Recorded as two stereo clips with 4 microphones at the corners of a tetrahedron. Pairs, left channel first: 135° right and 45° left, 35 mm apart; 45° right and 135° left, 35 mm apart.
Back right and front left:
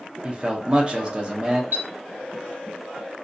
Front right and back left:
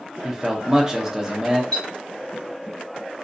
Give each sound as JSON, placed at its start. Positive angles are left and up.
{"t": 0.2, "sound": "a man speaking", "azimuth_deg": 80, "distance_m": 0.5}
{"t": 1.7, "sound": "a clink", "azimuth_deg": 35, "distance_m": 1.8}